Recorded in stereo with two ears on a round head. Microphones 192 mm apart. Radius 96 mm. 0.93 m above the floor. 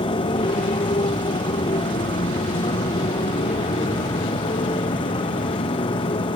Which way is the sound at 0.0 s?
20° left (ahead or behind).